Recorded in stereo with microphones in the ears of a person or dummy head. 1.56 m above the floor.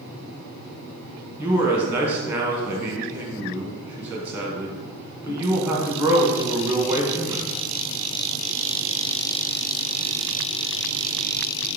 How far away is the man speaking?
About 1.1 m.